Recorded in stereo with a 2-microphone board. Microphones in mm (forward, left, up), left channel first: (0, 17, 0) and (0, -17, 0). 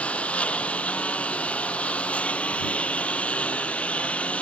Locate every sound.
0.0 s a lawn mower: 35° left (ahead or behind)